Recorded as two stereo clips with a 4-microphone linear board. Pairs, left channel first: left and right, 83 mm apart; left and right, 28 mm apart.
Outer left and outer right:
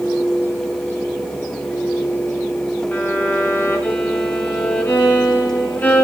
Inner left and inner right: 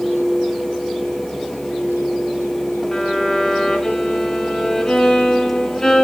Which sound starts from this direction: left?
A violin, at 2.9 s.